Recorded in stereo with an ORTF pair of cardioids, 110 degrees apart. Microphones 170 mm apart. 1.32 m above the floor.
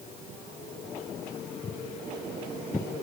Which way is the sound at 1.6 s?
35° left.